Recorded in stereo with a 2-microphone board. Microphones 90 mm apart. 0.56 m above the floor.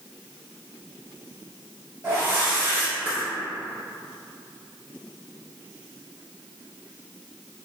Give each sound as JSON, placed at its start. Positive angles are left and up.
{"t": 2.0, "sound": "a whoosh", "side_deg": -25, "distance_m": 1.7}